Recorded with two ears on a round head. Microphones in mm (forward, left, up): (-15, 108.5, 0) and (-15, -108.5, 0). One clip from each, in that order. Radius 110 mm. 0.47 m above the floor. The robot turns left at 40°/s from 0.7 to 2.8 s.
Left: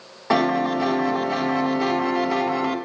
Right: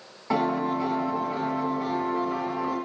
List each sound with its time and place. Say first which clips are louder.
0.3 s a piano: left 5 dB; 130° left, 2.5 m; by 2.8 s 50° left, 2.5 m